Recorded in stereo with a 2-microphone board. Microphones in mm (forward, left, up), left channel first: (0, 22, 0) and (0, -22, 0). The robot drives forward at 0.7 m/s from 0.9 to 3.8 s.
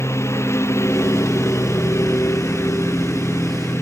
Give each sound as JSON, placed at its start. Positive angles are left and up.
{"t": 0.0, "sound": "a lawn mower", "side_deg": 85}